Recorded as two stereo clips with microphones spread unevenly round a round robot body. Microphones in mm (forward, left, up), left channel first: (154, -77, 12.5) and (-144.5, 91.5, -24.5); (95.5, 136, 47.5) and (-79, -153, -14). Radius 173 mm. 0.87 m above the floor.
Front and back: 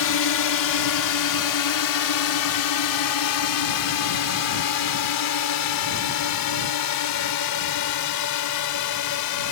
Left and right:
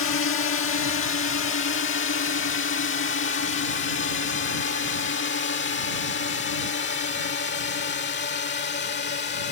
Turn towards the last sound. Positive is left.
turn(degrees=-5)